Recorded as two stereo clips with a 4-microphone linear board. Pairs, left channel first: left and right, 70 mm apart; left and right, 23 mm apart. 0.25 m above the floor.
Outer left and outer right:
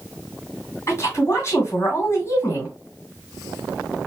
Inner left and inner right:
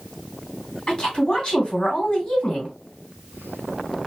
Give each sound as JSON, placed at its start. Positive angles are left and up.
{"t": 0.9, "sound": "a woman speaking", "side_deg": 40, "distance_m": 2.0}